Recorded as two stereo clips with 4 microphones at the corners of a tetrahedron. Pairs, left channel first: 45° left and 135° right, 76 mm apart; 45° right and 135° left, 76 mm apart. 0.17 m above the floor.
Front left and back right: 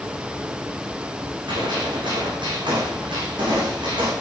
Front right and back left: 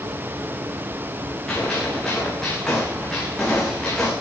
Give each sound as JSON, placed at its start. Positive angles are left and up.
{"t": 1.5, "sound": "a gunshot", "azimuth_deg": -130, "distance_m": 8.5}